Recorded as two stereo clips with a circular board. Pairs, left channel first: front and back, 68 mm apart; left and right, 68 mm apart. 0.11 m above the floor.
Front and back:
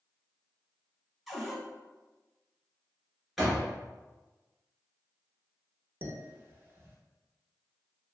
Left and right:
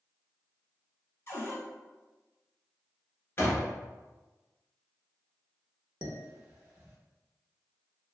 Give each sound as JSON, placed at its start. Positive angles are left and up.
{"t": 1.3, "sound": "a cupboard door", "azimuth_deg": 95, "distance_m": 0.8}
{"t": 3.4, "sound": "a door slam", "azimuth_deg": 95, "distance_m": 1.4}
{"t": 6.0, "sound": "dishes clattering", "azimuth_deg": -150, "distance_m": 1.0}